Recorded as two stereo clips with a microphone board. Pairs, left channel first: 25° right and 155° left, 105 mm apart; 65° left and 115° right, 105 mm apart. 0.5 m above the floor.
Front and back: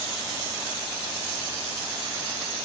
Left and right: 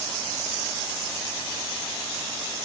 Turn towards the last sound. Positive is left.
No sound to turn to.